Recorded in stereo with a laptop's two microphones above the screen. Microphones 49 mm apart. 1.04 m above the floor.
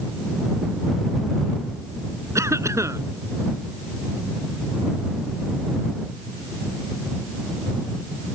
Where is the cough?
90° right.